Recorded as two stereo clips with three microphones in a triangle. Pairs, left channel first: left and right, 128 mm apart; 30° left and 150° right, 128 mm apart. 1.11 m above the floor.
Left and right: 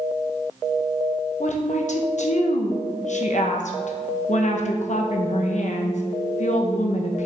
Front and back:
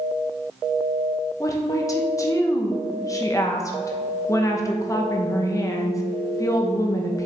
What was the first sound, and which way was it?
A woman speaking, 90° left.